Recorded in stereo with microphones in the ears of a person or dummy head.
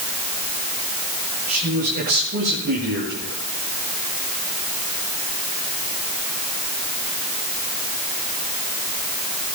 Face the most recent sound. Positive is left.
turn(degrees=-55)  # may be behind; listen again after turning